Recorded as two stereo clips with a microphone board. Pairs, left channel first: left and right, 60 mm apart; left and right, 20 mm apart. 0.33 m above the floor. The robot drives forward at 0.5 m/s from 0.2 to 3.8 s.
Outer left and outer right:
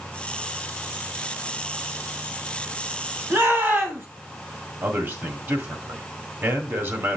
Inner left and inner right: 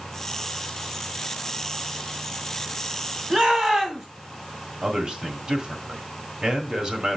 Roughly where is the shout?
Right.